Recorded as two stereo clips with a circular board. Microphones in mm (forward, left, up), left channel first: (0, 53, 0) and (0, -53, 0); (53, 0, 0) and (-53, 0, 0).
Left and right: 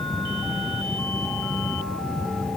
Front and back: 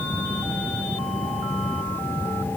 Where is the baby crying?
No baby crying in this recording.